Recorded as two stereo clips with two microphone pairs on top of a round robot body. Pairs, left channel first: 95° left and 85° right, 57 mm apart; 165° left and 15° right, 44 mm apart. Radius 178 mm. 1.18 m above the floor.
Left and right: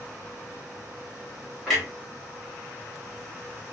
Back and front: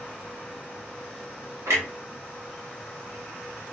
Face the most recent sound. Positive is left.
turn(degrees=10)